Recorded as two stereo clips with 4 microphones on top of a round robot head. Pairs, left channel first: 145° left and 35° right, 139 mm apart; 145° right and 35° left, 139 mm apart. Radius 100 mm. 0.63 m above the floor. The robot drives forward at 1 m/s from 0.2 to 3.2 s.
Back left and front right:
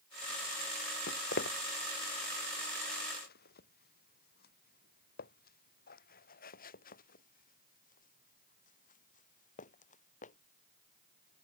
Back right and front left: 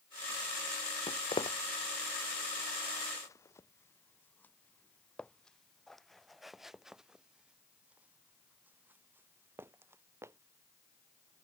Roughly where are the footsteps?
Behind.